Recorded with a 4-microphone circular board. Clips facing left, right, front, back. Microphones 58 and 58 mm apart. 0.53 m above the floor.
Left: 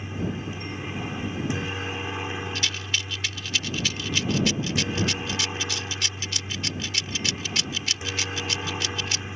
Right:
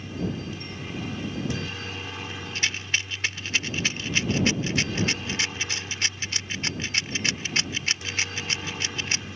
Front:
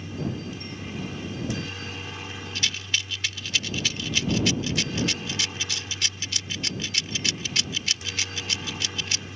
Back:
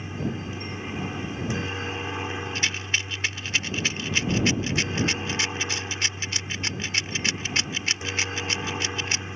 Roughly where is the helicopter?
Behind left.